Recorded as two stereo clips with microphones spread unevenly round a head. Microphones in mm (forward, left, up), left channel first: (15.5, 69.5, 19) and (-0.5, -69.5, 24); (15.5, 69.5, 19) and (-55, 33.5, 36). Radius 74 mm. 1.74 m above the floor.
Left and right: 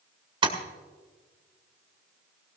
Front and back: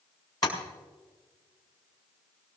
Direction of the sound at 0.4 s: 40° right.